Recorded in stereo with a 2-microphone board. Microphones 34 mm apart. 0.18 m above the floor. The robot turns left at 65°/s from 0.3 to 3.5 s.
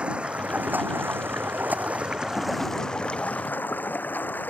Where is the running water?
35° right; by 4.5 s 120° left.